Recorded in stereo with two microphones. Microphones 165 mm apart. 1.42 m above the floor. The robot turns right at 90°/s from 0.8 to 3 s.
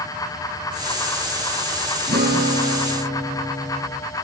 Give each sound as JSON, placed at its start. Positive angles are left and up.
{"t": 2.1, "sound": "a guitar", "azimuth_deg": -105, "distance_m": 6.0}